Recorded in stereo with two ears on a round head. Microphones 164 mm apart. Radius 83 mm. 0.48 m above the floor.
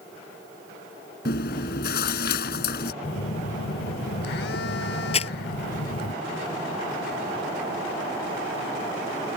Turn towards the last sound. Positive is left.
turn(degrees=35)  # may be behind; listen again after turning